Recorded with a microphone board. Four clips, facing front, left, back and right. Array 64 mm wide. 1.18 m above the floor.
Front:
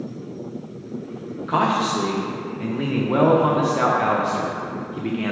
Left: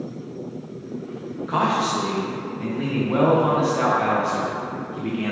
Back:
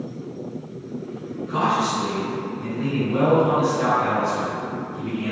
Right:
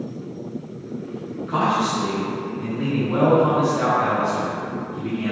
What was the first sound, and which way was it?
A man speaking, 15° left.